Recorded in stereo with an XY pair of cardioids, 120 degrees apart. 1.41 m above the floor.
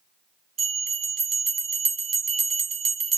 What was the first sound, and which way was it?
A bell, 45° right.